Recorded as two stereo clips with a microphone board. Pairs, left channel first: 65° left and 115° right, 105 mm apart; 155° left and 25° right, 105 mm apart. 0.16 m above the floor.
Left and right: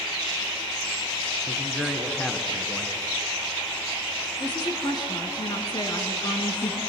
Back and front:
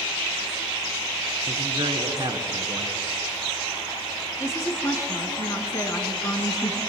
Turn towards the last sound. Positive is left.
turn(degrees=105)